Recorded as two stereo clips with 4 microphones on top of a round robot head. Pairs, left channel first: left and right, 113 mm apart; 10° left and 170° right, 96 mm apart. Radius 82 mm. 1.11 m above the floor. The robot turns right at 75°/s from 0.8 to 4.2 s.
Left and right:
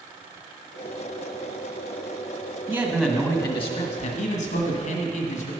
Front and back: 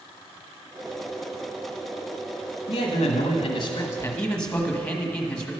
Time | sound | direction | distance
2.7 | a man speaking | 20° right | 1.4 m